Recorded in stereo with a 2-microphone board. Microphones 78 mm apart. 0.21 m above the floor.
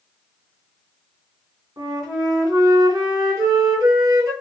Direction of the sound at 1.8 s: 45° right (ahead or behind).